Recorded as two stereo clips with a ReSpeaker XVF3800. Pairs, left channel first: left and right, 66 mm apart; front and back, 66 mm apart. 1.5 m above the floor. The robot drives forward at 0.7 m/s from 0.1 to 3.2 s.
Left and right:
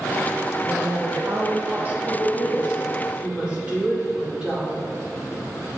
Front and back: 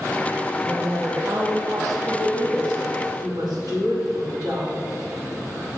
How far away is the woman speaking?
About 0.9 m.